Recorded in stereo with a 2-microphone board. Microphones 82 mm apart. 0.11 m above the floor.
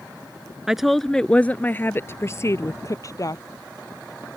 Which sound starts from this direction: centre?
A woman speaking, at 0.7 s.